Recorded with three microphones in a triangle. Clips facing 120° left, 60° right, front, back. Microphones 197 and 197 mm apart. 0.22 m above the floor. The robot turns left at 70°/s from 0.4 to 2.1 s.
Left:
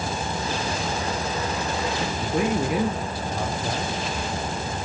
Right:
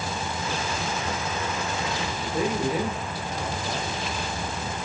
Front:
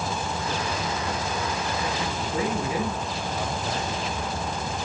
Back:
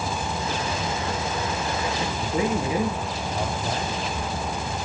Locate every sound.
2.2 s a man speaking: 110° left, 3.5 m